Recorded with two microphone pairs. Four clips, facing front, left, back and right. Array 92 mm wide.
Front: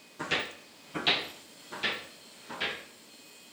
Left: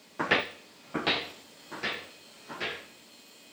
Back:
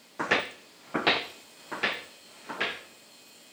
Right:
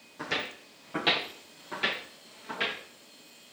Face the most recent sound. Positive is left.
turn(degrees=-160)